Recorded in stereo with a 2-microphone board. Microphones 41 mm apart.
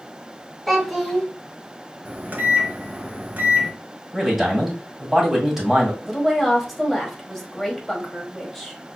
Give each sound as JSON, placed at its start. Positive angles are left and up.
{"t": 0.7, "sound": "a child speaking", "side_deg": 5, "distance_m": 1.5}
{"t": 2.0, "sound": "a microwave", "side_deg": -45, "distance_m": 1.1}
{"t": 4.1, "sound": "a man speaking", "side_deg": -5, "distance_m": 2.0}
{"t": 6.0, "sound": "a woman speaking", "side_deg": 5, "distance_m": 1.3}